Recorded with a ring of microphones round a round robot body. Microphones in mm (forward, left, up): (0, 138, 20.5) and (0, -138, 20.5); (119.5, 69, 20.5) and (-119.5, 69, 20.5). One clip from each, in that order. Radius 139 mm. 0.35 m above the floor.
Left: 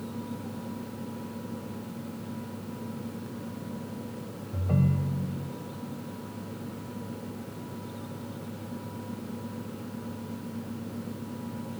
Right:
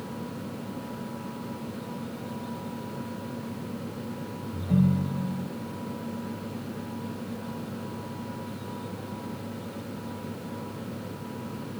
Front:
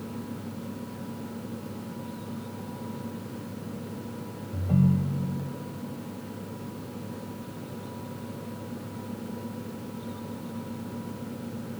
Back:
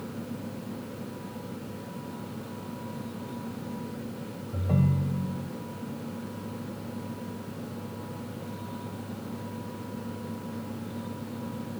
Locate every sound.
4.5 s a ringtone: 140° left, 1.4 m